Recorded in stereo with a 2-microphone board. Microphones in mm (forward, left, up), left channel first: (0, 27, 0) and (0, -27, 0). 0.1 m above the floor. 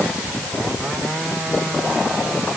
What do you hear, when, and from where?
Only background noise.